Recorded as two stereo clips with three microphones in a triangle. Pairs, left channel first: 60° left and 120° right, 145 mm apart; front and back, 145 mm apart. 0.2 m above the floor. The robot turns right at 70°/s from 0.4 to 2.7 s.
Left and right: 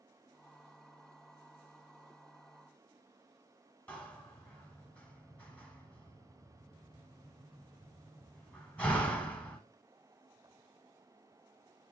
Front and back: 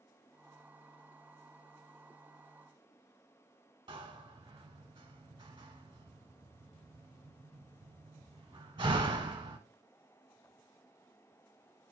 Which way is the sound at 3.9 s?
140° left.